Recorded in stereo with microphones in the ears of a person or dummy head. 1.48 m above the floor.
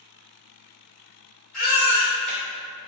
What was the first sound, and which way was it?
A baby crying, 10° left (ahead or behind).